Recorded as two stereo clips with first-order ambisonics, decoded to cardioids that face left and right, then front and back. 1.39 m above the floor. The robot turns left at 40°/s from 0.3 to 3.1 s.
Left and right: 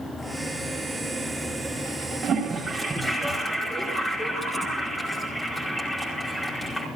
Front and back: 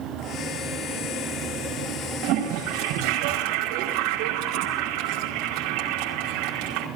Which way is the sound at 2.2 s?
150° right.